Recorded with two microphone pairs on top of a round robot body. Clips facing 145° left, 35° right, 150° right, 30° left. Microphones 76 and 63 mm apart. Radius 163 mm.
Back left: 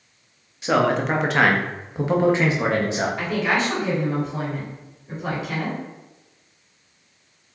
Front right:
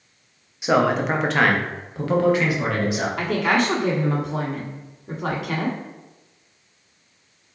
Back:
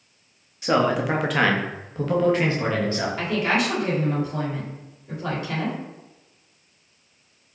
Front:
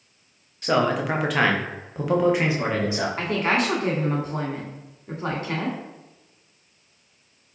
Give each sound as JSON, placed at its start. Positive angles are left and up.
{"t": 0.6, "sound": "a man speaking", "azimuth_deg": -85, "distance_m": 1.1}
{"t": 3.2, "sound": "a woman speaking", "azimuth_deg": -20, "distance_m": 1.9}